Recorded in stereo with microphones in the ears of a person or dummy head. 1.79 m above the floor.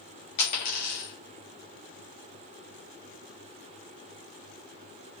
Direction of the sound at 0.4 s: 30° left (ahead or behind).